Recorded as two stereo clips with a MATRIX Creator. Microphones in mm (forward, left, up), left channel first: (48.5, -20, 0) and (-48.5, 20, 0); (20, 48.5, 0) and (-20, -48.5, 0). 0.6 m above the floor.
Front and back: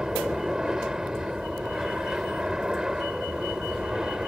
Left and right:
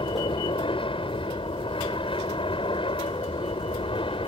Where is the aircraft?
75° left.